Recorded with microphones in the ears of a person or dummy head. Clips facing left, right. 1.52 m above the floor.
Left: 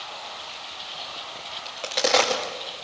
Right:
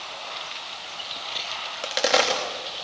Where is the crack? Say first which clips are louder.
Even; 10° right (ahead or behind), 3.5 m.